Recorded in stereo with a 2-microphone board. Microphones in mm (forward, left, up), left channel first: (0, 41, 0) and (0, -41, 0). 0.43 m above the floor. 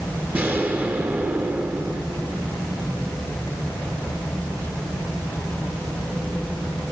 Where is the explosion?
25° right (ahead or behind), 3 m.